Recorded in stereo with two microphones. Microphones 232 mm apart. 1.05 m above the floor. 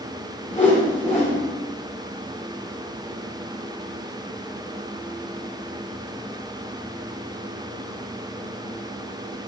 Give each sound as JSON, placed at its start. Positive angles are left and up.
{"t": 0.5, "sound": "a whoosh", "side_deg": 35, "distance_m": 2.5}